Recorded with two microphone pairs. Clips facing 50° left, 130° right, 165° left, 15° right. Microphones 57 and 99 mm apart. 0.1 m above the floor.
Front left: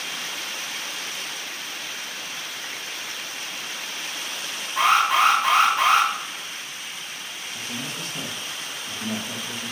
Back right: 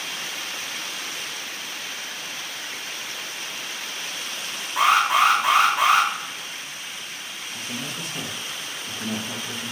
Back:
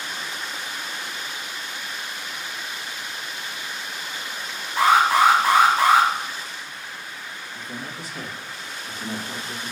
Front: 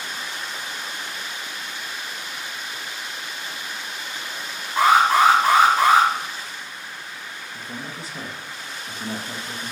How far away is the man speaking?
About 2 m.